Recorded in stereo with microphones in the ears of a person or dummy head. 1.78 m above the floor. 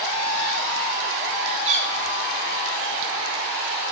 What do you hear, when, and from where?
1.6 s a cat meowing: 40° right (ahead or behind), 4.5 m